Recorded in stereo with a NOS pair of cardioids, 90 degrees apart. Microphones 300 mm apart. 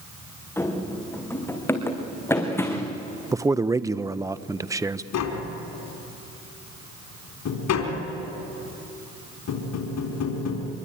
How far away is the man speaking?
About 0.8 m.